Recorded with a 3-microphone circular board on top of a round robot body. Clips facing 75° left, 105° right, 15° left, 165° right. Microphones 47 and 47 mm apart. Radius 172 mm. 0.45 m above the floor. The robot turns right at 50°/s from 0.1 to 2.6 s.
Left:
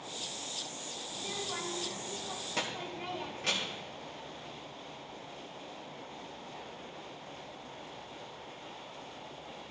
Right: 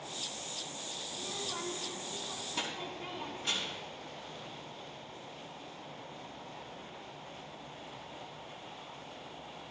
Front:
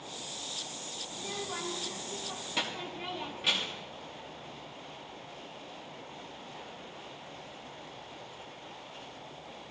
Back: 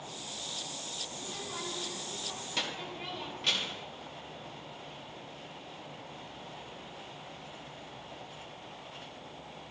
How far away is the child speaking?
About 2 m.